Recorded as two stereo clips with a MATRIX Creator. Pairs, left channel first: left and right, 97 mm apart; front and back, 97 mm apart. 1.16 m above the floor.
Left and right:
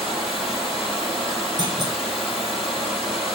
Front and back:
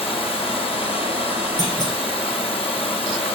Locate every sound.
0.0 s running water: straight ahead, 6 m
1.6 s a clunk: 45° right, 4 m